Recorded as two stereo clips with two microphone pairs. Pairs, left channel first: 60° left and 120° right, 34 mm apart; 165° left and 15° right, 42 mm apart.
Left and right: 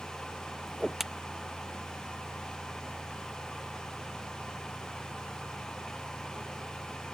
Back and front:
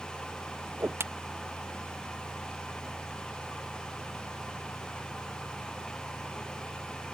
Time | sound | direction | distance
0.7 | a whoosh | 30° right | ?